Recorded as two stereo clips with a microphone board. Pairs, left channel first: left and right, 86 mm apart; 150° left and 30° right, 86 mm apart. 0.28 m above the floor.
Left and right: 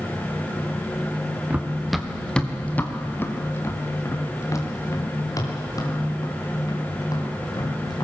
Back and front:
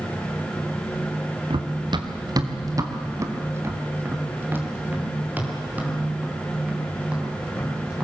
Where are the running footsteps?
15° right, 1.7 m; by 8.1 s 45° left, 8 m.